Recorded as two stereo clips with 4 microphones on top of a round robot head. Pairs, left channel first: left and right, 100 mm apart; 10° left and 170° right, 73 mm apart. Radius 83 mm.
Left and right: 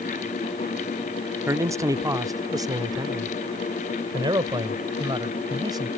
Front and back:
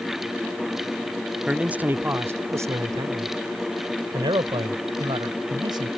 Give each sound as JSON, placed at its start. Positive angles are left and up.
{"t": 1.5, "sound": "a man speaking", "azimuth_deg": -105}